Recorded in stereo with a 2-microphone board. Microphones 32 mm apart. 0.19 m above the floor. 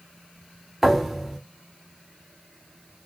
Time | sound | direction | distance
0.8 | a thud | 5° left (ahead or behind) | 1.4 m